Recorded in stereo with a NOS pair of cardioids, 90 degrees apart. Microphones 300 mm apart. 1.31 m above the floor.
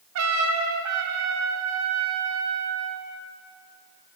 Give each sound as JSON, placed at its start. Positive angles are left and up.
{"t": 0.1, "sound": "a trumpet", "azimuth_deg": -70, "distance_m": 1.6}